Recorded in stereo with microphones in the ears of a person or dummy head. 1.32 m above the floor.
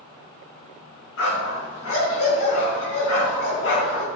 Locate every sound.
1.2 s a dog barking: 75° left (ahead or behind), 4 m